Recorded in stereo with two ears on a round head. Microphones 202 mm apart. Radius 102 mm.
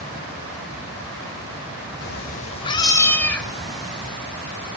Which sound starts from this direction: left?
A cat meowing, at 2.0 s.